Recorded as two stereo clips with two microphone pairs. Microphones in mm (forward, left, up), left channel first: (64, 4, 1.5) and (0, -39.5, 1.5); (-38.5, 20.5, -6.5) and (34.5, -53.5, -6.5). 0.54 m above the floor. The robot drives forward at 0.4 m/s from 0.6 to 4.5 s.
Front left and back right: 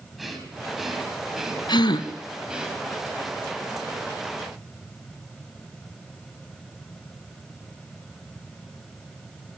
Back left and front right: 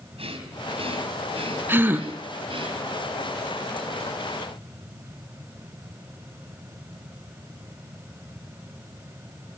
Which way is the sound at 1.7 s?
20° left.